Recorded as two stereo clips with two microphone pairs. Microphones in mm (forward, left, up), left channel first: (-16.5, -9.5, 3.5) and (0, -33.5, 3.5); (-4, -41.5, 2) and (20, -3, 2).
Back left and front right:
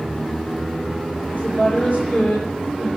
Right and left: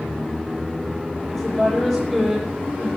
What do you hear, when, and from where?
1.3 s a woman speaking: 155° left, 8.5 m